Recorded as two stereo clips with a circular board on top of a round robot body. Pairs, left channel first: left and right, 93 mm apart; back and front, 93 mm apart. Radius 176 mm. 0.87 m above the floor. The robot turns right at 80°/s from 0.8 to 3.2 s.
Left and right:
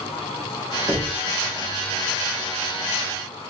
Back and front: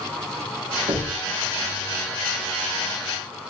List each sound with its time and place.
0.9 s knocking: 25° right, 1.9 m; by 1.2 s straight ahead, 1.9 m